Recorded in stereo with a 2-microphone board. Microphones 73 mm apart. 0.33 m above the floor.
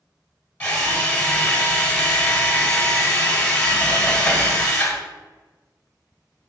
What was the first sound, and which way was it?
A drill, 15° left (ahead or behind).